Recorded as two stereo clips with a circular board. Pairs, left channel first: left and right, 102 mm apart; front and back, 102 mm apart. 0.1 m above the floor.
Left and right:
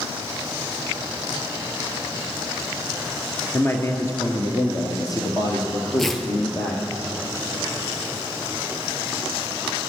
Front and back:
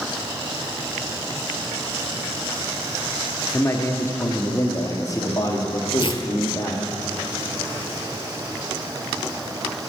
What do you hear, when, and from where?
3.5 s a man speaking: 40° left, 1.3 m; by 6.8 s 45° left, 2.5 m
6.0 s tearing paper: 5° left, 1.1 m